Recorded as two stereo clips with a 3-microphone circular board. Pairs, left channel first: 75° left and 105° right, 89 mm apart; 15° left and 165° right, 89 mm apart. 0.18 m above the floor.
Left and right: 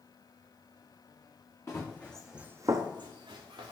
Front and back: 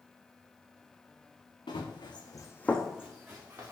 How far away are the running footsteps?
About 1.1 m.